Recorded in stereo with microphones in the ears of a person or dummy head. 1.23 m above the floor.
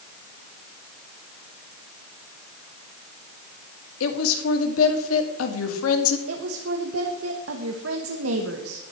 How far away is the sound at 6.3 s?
About 1.4 m.